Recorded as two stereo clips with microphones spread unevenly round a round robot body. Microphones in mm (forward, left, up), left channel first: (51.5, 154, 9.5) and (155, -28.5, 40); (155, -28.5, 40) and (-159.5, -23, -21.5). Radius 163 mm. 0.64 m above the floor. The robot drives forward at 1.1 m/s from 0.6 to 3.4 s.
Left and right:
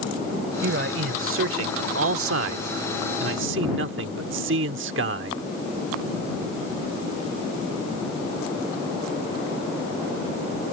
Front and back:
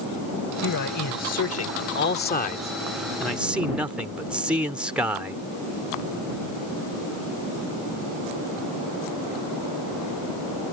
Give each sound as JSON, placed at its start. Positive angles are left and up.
{"t": 0.6, "sound": "a man speaking", "azimuth_deg": -35}